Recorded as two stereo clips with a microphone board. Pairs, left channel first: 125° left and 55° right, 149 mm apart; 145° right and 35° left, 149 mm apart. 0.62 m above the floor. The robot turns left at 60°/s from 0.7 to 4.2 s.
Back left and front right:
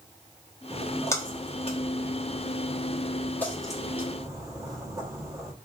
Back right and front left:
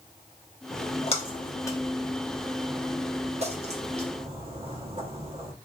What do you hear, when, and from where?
0.7 s a splash: 150° right, 0.9 m; by 5.5 s straight ahead, 0.9 m